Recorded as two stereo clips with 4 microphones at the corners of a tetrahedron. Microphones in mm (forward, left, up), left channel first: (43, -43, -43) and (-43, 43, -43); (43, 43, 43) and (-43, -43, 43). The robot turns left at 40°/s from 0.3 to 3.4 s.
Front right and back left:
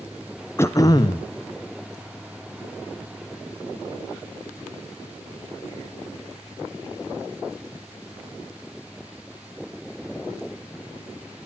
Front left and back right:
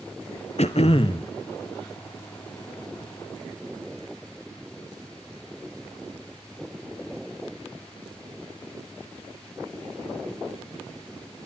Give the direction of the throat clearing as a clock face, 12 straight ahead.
11 o'clock.